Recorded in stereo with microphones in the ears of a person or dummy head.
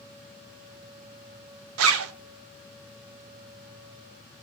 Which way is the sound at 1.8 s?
75° right (ahead or behind).